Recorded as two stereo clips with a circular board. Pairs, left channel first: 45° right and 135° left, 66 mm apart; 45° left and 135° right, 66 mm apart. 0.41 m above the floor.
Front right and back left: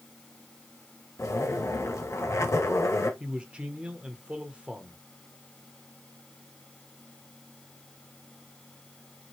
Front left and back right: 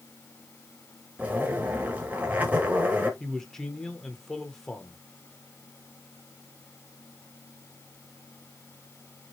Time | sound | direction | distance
1.2 | a zipper | 70° right | 1.2 m
3.2 | a man speaking | 110° left | 1.1 m